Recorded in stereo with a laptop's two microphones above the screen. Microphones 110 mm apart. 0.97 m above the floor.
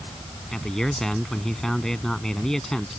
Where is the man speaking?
5° left (ahead or behind).